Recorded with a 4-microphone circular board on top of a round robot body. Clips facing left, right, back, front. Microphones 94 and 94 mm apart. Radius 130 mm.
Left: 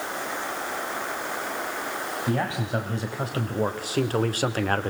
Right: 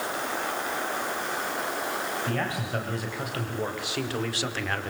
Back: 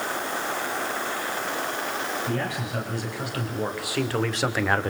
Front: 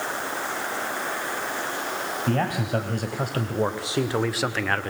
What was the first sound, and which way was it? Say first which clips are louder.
A man speaking: left 3 dB, front 4 dB; 25° left.